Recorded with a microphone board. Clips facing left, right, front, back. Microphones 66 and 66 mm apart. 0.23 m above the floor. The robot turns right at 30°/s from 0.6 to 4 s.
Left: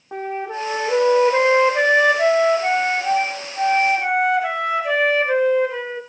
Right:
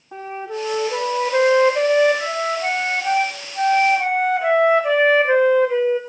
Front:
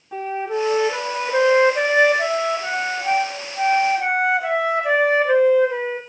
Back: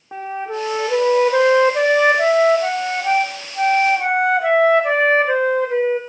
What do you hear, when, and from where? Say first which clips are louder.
0.1 s a flute: left 2 dB, front 1 dB; 120° left, 7 m; by 6.0 s 135° right, 7 m